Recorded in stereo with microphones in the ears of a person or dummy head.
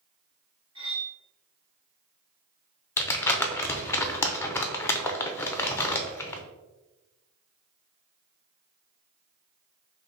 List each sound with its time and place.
0.8 s cutlery clinking: 30° right (ahead or behind), 1.6 m
3.0 s crumpling: 10° left (ahead or behind), 0.5 m